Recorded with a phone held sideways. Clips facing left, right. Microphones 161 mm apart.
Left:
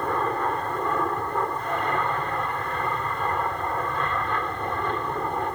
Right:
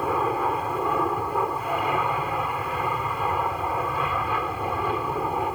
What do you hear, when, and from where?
0.0 s an aircraft: 5° right (ahead or behind)